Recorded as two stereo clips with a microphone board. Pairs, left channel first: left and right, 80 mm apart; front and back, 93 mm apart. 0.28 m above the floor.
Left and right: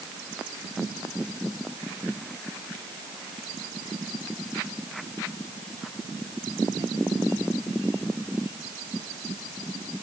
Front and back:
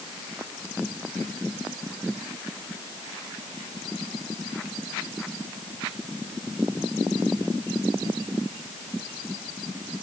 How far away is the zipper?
I don't hear a zipper.